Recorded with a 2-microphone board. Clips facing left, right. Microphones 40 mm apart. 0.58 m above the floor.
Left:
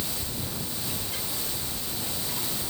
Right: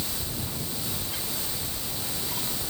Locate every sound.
Only background noise.